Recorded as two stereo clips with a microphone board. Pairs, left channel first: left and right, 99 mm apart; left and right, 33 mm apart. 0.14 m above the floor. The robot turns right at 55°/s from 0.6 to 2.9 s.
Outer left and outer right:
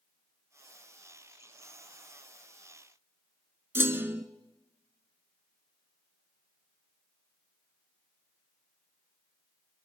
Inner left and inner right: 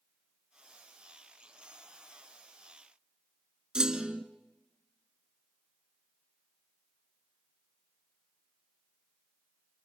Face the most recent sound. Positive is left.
turn(degrees=-25)  # may be behind; listen again after turning